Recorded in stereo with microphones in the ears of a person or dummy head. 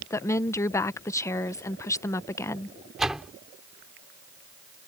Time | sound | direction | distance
0.1 | a woman speaking | 15° left (ahead or behind) | ?
3.0 | a door slam | centre (ahead or behind) | ?